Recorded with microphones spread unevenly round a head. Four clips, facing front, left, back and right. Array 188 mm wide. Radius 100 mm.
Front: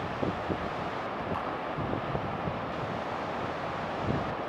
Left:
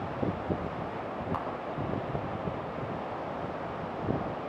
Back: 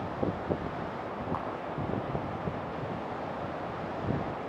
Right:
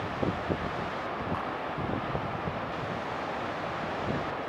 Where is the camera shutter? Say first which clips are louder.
Even, front 1 dB; 120° left, 3.5 m.